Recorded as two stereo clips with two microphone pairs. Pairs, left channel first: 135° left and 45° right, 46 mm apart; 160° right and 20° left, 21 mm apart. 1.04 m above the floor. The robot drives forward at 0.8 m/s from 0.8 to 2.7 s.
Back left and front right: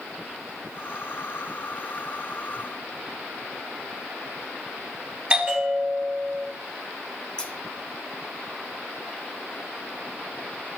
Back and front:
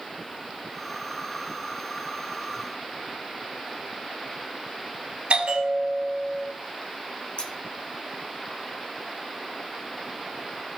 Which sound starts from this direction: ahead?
A bell, at 5.3 s.